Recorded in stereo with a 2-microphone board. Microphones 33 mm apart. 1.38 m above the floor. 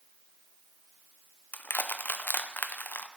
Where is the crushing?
70° left (ahead or behind), 0.7 m.